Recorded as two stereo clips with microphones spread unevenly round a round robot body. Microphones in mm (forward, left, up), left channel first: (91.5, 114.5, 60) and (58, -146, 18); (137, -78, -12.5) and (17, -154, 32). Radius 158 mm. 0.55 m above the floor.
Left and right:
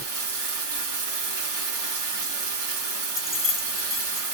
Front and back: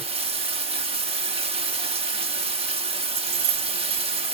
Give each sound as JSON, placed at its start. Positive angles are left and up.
{"t": 0.0, "sound": "running water", "azimuth_deg": -95, "distance_m": 1.6}
{"t": 3.2, "sound": "keys jangling", "azimuth_deg": 175, "distance_m": 0.8}